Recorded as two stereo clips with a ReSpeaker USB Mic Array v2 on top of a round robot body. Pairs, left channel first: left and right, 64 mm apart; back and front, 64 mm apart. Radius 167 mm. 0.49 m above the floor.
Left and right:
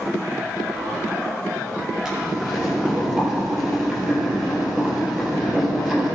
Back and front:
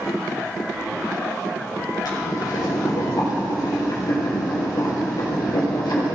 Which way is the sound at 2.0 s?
175° right.